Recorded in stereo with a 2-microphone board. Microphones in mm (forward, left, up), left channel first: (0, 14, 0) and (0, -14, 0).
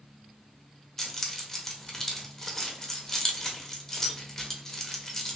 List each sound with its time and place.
1.0 s keys jangling: 15° left (ahead or behind), 0.6 m